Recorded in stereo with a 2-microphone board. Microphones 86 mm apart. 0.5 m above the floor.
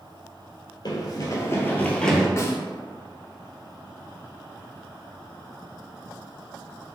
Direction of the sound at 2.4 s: 35° left (ahead or behind).